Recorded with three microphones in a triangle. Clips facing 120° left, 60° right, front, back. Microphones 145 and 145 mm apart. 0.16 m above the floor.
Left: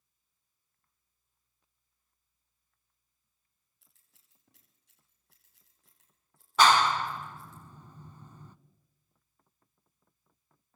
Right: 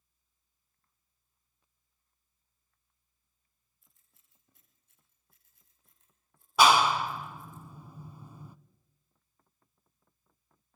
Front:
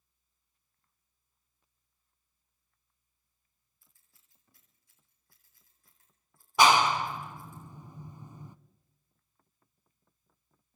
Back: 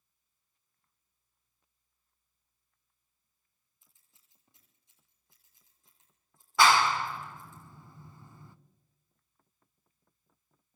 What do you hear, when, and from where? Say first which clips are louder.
3.8 s scissors: even, even; 110° left, 9 m
6.6 s a clap: right 1 dB, front 1 dB; 5° right, 0.8 m